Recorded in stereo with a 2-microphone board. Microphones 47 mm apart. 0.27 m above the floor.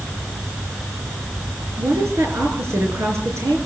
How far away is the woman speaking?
About 5.5 m.